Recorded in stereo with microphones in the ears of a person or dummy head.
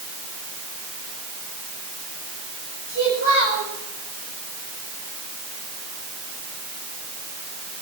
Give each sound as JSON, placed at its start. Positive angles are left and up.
{"t": 2.9, "sound": "a child speaking", "side_deg": -70, "distance_m": 7.5}